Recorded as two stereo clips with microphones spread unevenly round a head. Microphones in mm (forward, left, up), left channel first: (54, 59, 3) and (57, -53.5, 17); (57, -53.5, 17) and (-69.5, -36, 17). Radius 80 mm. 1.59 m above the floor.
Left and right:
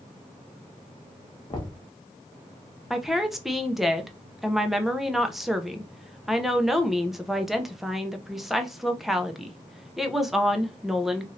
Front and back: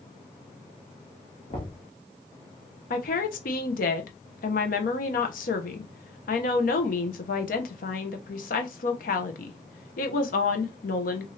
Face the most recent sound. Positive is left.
turn(degrees=-5)